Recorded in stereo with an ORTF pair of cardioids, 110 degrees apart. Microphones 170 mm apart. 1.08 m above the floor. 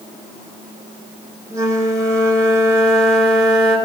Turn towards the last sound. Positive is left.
turn(degrees=-20)